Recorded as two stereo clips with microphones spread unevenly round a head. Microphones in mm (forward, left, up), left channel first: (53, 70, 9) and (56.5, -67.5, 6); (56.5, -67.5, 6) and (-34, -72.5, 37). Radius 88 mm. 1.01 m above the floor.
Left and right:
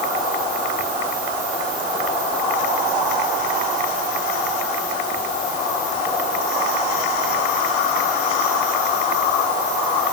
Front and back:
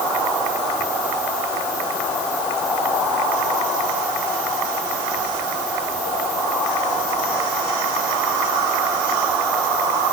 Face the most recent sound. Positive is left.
No sound to turn to.